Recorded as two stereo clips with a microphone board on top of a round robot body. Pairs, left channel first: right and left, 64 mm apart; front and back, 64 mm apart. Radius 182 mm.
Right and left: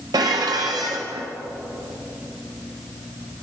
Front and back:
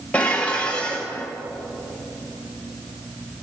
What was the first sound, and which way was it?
Dishes clattering, 75° left.